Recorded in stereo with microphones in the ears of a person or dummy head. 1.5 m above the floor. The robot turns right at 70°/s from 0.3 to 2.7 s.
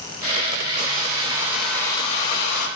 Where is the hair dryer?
60° right, 7 m; by 2.7 s 70° left, 7 m.